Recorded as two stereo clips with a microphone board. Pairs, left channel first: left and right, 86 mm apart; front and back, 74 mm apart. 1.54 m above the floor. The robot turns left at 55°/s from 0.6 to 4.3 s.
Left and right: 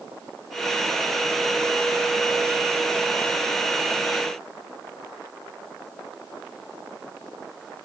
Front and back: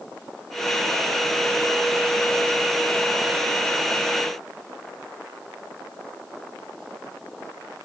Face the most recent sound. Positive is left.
No sound to turn to.